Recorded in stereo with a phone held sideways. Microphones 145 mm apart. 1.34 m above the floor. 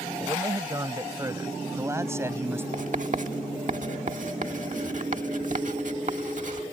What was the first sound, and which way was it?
A man speaking, 25° right (ahead or behind).